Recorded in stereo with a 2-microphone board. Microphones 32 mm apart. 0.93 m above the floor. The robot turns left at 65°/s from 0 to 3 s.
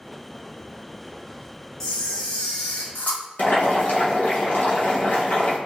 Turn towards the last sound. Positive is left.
turn(degrees=65)  # may be behind; listen again after turning